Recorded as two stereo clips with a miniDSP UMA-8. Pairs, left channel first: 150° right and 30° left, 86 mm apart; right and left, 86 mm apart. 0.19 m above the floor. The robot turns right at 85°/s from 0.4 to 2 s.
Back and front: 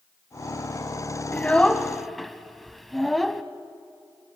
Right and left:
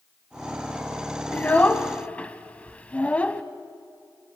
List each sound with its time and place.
1.3 s a child speaking: 120° right, 0.8 m; by 3.4 s 60° right, 0.8 m